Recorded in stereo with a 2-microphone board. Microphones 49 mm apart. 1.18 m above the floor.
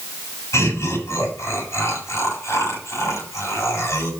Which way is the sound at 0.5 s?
80° left.